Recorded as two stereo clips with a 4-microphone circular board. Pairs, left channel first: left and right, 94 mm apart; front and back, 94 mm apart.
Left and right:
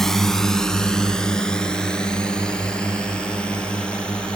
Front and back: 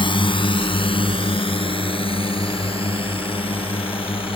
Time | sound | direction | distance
0.0 | a drone | 5° left | ?